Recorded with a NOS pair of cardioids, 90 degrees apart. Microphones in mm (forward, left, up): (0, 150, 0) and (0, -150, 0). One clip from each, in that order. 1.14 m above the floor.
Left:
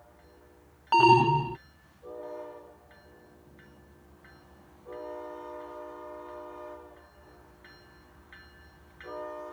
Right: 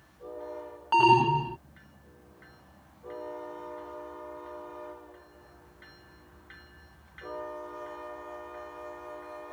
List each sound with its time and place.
0.9 s an alarm: 10° left